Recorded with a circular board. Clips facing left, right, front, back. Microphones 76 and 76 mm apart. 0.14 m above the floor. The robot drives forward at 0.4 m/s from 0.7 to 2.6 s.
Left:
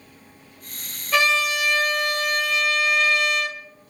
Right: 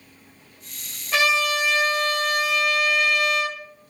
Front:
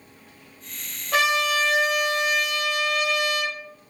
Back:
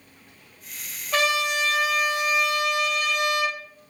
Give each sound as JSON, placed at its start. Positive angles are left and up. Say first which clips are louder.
{"t": 1.1, "sound": "a trumpet", "louder": "even, front 2 dB", "azimuth_deg": -15, "distance_m": 2.0}